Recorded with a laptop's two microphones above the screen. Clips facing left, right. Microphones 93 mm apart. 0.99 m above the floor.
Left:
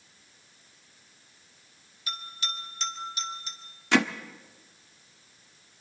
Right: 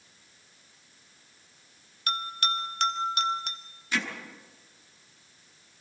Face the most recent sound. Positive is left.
turn(degrees=75)  # may be behind; listen again after turning